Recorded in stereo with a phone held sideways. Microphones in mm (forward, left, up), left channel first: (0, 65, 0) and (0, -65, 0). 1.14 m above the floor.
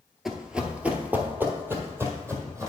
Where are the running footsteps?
5° right (ahead or behind), 1.2 m; by 2.7 s 20° right (ahead or behind), 2.5 m.